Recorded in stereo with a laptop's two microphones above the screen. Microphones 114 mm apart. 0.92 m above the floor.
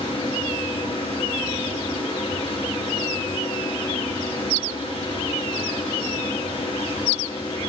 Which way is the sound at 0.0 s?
50° left (ahead or behind).